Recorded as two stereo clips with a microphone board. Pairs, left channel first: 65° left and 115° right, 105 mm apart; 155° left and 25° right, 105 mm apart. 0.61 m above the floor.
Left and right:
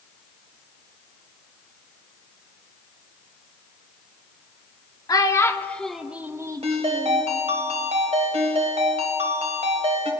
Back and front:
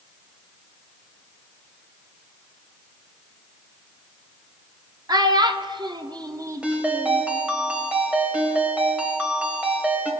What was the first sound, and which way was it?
A child speaking, 20° left.